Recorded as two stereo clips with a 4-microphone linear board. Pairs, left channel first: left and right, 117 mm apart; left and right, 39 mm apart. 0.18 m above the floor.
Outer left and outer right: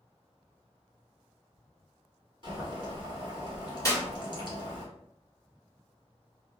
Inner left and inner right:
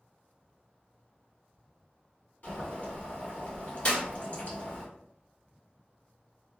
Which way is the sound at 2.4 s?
40° left (ahead or behind).